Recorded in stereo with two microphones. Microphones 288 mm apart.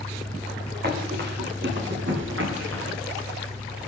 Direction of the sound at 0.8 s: 35° right (ahead or behind).